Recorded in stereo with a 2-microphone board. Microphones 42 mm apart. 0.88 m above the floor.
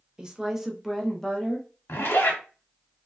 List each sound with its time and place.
0.2 s a woman speaking: 20° right (ahead or behind), 0.6 m; by 1.7 s 20° left (ahead or behind), 0.6 m
1.9 s a zipper: 70° left (ahead or behind), 1.2 m